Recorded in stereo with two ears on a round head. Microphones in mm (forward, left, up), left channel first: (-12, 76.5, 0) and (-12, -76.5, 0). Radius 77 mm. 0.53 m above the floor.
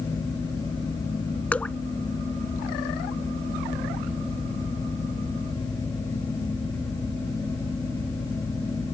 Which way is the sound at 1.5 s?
10° left (ahead or behind).